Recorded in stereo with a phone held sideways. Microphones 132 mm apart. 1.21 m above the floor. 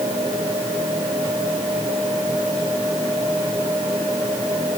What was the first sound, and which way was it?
Only background noise.